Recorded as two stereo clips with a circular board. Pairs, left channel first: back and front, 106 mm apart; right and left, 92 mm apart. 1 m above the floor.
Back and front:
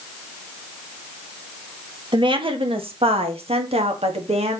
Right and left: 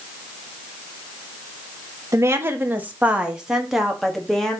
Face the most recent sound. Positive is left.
turn(degrees=-5)